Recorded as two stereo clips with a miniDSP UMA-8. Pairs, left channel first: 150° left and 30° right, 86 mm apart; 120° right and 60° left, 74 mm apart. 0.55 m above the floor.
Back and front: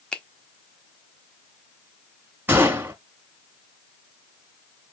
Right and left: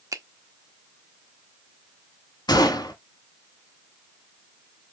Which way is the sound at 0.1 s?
75° left.